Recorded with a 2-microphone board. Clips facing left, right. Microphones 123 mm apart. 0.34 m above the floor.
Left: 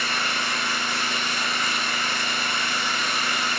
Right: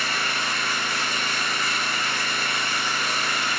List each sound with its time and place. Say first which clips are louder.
0.0 s an engine running: even; 75° left (ahead or behind), 1.1 m